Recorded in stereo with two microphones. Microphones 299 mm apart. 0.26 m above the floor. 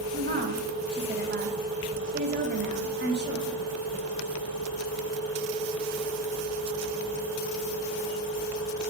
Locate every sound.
0.1 s a woman speaking: 35° right (ahead or behind), 1.6 m